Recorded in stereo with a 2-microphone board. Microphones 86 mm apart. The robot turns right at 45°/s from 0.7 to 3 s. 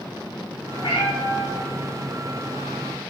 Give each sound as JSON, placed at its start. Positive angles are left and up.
{"t": 0.8, "sound": "a cat meowing", "azimuth_deg": 110, "distance_m": 4.5}